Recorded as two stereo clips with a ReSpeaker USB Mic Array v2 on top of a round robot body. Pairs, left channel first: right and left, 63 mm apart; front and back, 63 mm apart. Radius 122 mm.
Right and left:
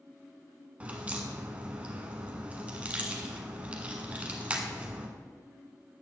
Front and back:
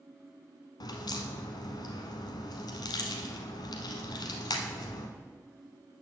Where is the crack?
20° left, 0.8 m.